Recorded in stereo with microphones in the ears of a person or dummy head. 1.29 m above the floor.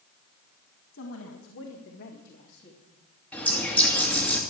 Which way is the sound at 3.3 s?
10° left (ahead or behind).